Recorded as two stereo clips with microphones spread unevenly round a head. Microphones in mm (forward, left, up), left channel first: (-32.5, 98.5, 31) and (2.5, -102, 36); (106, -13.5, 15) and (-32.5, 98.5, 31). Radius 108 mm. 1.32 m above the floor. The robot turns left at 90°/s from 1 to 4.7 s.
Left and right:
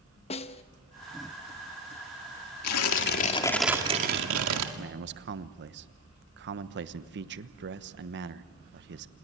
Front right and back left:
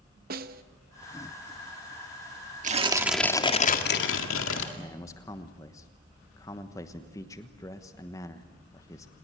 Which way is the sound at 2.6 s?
100° left.